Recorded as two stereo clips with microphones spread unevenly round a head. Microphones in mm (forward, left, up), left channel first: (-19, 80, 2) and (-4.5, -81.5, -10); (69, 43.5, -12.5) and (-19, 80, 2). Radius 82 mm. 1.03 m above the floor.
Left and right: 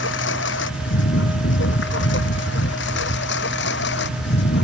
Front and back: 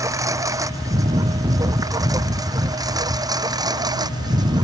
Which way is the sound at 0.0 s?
105° left.